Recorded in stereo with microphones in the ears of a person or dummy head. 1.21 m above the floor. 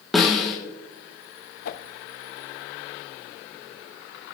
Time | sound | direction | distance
0.1 | a snare drum | 5° right (ahead or behind) | 1.4 m
1.6 | a whoosh | 55° left (ahead or behind) | 0.6 m